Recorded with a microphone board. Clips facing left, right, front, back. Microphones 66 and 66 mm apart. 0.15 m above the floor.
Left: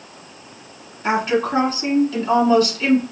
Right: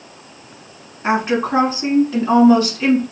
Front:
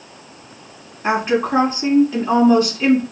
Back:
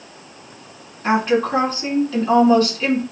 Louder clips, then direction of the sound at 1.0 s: Right 1 dB, even; 60° right.